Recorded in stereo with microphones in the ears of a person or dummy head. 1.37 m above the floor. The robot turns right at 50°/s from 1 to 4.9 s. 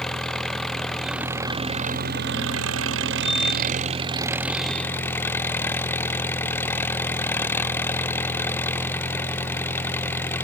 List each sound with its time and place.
0.0 s an engine running: straight behind; by 10.5 s 15° left